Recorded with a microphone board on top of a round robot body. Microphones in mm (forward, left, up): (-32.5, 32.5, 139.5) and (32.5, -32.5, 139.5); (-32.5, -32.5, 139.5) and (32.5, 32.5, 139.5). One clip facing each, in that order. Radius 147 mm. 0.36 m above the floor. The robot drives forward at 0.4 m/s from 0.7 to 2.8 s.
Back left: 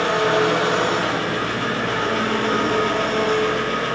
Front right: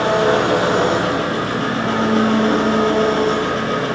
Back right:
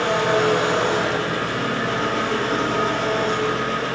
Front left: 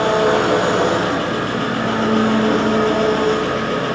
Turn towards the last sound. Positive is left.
turn(degrees=10)